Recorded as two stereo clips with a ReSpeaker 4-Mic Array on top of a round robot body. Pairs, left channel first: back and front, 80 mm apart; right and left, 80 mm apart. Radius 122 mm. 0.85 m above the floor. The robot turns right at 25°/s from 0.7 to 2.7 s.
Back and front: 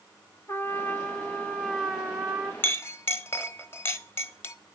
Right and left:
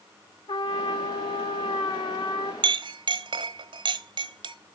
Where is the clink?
115° left, 0.9 m.